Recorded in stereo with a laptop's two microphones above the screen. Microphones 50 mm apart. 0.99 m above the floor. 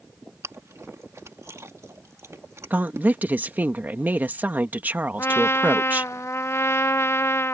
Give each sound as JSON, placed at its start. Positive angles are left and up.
{"t": 0.4, "sound": "chewing", "side_deg": -70}
{"t": 2.7, "sound": "a woman speaking", "side_deg": -35}
{"t": 5.2, "sound": "a trumpet", "side_deg": 75}